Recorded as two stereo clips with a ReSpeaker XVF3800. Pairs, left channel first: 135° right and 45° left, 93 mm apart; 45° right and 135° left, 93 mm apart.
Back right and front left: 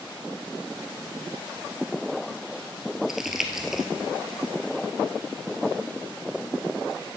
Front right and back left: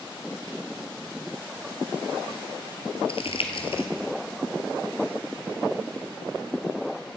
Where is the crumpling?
40° right, 0.9 m.